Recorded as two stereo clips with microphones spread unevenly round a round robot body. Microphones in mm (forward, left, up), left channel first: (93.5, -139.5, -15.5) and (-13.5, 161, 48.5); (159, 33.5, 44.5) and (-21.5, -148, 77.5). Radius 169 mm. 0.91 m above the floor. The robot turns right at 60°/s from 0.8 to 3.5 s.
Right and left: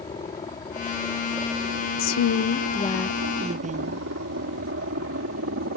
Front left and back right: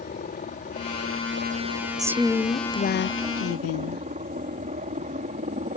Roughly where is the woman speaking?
Ahead right.